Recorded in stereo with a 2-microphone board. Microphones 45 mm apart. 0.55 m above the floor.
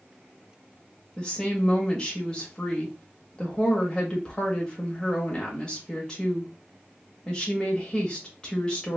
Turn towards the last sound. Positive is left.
turn(degrees=15)  # may be behind; listen again after turning